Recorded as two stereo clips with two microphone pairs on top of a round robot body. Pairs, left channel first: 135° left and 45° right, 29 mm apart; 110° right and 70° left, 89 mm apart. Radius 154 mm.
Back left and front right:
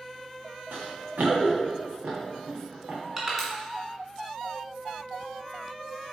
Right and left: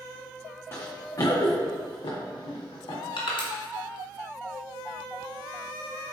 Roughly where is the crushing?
Behind right.